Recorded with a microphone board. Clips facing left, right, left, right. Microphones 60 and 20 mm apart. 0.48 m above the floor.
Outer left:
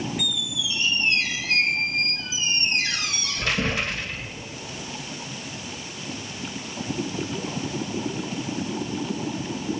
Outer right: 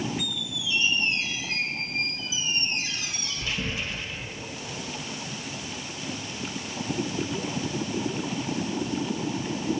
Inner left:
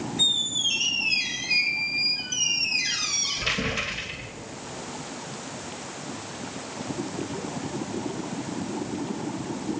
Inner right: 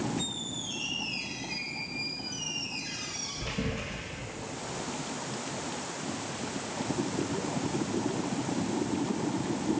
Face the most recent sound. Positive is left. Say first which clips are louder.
# outer left 3 dB, inner left 13 dB
turn(degrees=70)  # may be behind; listen again after turning